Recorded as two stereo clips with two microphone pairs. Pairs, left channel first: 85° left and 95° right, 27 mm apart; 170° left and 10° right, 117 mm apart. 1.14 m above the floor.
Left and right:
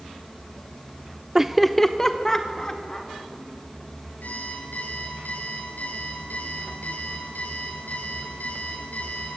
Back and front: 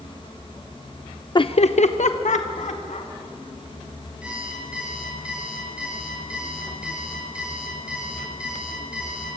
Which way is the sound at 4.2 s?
75° left.